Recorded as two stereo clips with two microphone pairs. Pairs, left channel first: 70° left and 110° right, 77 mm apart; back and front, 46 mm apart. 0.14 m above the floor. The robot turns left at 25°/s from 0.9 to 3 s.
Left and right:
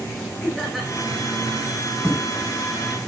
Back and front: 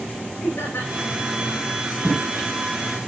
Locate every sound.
0.4 s laughter: 155° left, 7.5 m